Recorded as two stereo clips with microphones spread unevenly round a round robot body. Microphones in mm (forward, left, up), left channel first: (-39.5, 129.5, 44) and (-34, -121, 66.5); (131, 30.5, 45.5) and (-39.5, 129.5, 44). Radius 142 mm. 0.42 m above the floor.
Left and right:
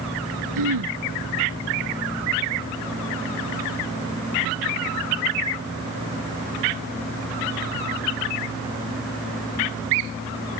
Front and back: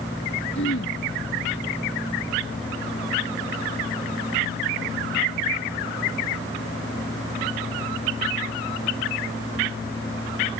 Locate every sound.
0.6 s throat clearing: 80° right